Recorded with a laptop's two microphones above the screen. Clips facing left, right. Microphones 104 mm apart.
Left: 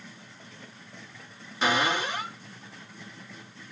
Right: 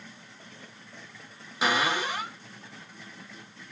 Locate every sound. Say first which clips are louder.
1.6 s a cupboard door: left 1 dB; 10° right (ahead or behind), 1.3 m